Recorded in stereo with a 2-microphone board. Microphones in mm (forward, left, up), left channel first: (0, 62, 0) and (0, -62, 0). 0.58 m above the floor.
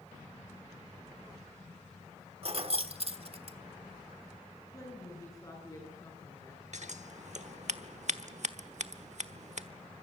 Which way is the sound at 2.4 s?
50° right (ahead or behind).